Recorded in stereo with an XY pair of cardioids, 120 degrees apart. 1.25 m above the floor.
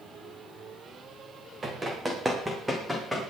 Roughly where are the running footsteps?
Ahead right.